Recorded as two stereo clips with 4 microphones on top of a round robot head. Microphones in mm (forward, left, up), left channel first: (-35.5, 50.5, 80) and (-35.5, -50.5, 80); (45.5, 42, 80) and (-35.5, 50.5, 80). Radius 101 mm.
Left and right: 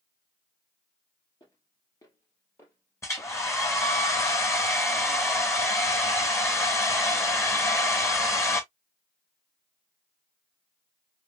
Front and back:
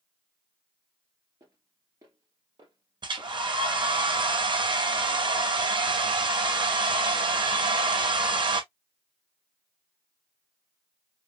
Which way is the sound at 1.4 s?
125° left.